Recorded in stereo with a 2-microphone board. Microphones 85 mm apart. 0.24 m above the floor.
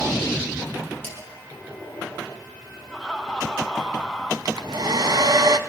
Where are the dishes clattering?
25° left (ahead or behind), 5 m.